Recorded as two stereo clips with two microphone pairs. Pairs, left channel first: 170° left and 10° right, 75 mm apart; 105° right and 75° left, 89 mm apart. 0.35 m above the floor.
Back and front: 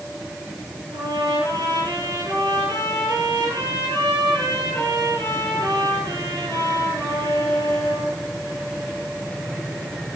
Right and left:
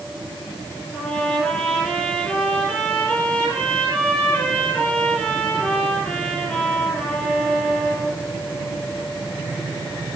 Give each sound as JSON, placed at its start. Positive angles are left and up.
{"t": 0.9, "sound": "a trumpet", "azimuth_deg": -35, "distance_m": 4.0}